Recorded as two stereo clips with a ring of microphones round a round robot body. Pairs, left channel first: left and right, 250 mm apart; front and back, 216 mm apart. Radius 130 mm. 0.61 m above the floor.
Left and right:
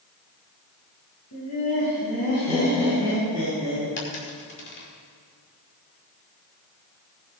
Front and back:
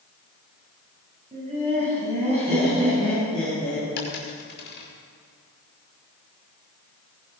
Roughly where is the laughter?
Behind left.